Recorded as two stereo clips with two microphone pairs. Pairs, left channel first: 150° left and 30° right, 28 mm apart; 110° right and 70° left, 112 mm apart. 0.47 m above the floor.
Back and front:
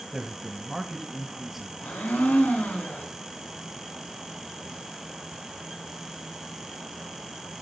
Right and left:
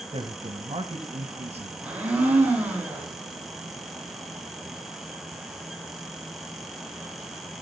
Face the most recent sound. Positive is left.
turn(degrees=145)